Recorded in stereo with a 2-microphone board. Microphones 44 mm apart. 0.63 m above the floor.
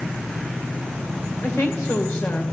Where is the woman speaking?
70° left (ahead or behind), 2.5 m.